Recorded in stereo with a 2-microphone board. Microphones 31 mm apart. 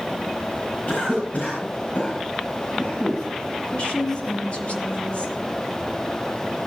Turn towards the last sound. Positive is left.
turn(degrees=45)  # may be behind; listen again after turning